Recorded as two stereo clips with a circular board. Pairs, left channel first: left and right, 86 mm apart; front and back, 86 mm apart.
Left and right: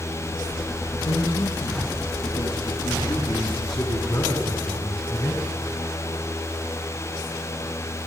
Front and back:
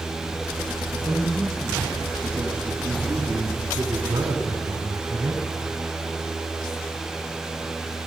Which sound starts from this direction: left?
A man speaking, at 0.9 s.